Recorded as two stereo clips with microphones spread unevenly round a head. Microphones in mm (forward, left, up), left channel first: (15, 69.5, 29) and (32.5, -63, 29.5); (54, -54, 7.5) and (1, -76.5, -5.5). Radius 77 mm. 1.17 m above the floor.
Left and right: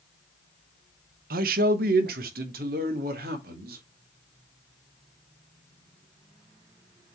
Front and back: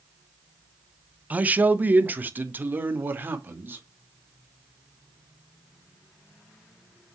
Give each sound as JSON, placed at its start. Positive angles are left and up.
{"t": 1.3, "sound": "a man speaking", "azimuth_deg": -95, "distance_m": 0.9}